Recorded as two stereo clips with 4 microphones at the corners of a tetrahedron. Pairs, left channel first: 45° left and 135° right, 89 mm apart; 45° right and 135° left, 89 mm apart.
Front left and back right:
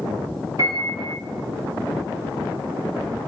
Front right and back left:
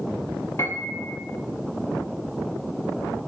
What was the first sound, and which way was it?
A piano, 100° right.